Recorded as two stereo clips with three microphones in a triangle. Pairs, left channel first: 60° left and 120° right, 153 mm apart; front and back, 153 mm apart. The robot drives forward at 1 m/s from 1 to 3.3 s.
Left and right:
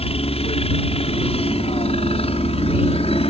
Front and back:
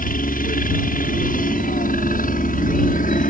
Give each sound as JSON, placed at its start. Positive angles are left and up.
{"t": 0.0, "sound": "a helicopter", "azimuth_deg": 15}